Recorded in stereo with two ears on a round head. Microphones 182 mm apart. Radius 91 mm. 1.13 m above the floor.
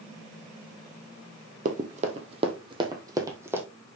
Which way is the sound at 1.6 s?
40° right (ahead or behind).